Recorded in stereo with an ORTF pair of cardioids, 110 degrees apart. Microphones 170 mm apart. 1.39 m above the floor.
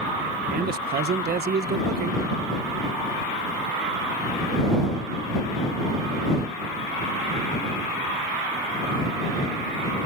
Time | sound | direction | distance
0.5 | a man speaking | 70° right | ?